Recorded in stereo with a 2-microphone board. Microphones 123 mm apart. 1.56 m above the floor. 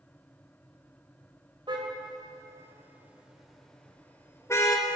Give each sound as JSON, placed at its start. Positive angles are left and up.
{"t": 1.7, "sound": "a car horn", "side_deg": -40, "distance_m": 4.0}